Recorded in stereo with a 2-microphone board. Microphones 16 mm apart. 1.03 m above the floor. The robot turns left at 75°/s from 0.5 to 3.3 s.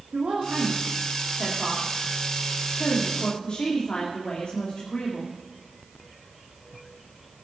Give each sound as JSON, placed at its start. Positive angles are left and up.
{"t": 0.1, "sound": "a woman speaking", "azimuth_deg": -65, "distance_m": 2.5}